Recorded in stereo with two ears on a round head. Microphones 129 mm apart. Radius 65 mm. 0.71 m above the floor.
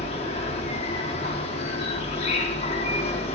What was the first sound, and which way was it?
An insect, 40° left (ahead or behind).